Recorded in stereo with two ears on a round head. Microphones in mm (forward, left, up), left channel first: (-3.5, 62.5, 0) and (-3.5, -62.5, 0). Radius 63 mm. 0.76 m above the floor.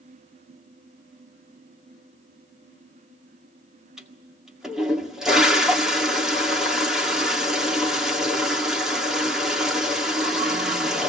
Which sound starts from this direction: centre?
A toilet flushing, at 4.0 s.